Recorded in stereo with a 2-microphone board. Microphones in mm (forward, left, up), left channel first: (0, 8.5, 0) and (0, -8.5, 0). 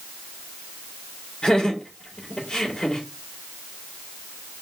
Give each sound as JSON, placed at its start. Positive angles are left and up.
{"t": 1.4, "sound": "laughter", "side_deg": 40, "distance_m": 2.5}